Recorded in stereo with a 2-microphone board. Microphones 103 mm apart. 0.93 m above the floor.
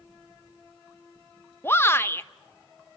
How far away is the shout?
About 1.1 m.